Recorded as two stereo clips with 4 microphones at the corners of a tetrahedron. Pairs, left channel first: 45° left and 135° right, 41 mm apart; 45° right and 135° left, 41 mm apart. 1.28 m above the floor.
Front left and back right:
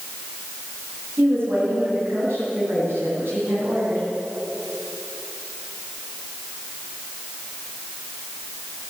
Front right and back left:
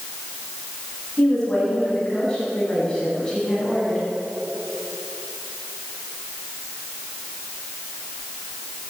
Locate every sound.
1.2 s a woman speaking: 115° right, 9 m; by 4.0 s 125° right, 9.5 m